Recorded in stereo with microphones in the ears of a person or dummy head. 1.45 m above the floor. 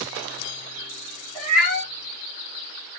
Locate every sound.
1.4 s a cat meowing: centre (ahead or behind), 1.9 m